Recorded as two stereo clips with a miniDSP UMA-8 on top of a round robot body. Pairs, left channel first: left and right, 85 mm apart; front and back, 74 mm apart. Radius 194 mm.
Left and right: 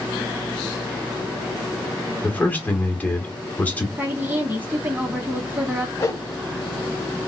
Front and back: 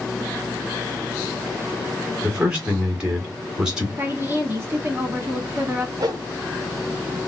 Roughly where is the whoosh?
Behind left.